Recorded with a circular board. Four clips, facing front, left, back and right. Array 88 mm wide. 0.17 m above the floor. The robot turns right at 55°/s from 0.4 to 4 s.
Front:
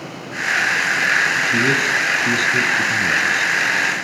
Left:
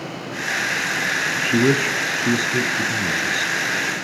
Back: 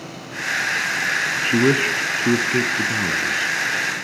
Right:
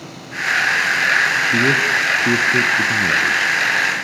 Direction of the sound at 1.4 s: 150° left.